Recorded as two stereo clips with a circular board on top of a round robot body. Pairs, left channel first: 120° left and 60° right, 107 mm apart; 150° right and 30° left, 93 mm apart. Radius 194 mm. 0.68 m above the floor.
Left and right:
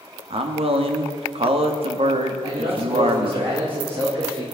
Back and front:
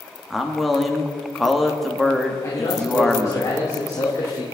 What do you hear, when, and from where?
0.3 s a man speaking: 60° right, 2 m
2.4 s a man speaking: 95° right, 3.5 m